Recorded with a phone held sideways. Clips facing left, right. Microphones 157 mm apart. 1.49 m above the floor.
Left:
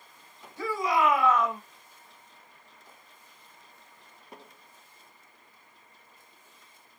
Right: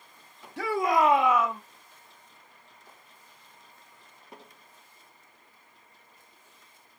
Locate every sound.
0.6 s a shout: 75° right (ahead or behind), 0.9 m; by 1.6 s 5° left (ahead or behind), 1.0 m